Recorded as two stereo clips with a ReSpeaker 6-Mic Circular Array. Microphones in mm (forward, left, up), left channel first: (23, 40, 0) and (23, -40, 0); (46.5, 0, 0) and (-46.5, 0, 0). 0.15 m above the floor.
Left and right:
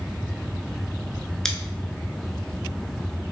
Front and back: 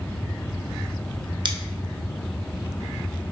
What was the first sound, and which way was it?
Scissors, 170° left.